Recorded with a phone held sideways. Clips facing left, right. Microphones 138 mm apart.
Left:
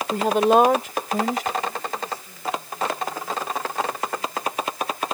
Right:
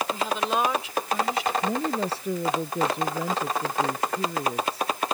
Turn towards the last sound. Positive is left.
turn(degrees=-75)  # may be behind; listen again after turning